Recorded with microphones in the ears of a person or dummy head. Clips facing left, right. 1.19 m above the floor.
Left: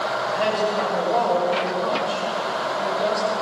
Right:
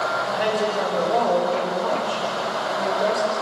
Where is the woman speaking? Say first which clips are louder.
Left 1 dB; 20° right (ahead or behind), 5.5 m.